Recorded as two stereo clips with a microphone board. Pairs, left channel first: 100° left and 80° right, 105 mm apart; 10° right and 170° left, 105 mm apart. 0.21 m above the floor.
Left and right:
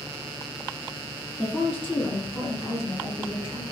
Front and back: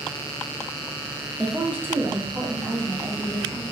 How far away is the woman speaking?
About 1.4 m.